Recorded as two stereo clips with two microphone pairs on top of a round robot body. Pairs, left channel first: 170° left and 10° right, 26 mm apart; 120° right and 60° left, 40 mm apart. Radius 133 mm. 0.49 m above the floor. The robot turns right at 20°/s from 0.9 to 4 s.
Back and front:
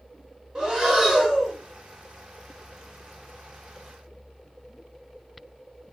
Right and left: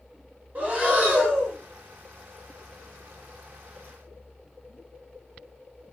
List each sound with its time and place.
0.6 s breathing: 30° left, 2.0 m; by 1.6 s 45° left, 2.0 m